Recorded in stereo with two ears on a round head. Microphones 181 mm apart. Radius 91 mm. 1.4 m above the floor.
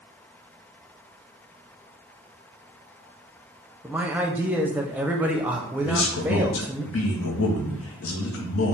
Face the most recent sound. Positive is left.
turn(degrees=70)  # may be behind; listen again after turning